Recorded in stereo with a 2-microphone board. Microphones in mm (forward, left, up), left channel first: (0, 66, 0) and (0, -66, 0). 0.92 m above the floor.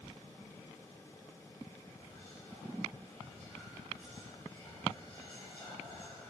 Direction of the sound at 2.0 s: 15° left (ahead or behind).